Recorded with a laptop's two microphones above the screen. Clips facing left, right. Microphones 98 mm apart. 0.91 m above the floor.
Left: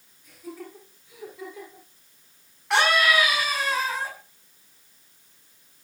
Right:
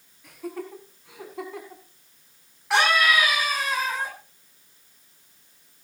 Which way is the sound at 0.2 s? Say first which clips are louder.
Right 5 dB; 85° right.